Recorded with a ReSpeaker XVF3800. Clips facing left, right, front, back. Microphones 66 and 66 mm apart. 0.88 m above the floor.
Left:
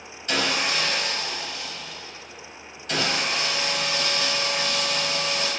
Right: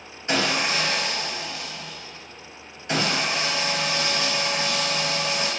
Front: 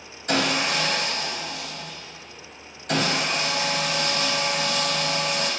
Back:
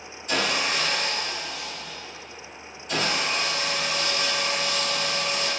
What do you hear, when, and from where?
0.3 s sawing: 25° right, 0.5 m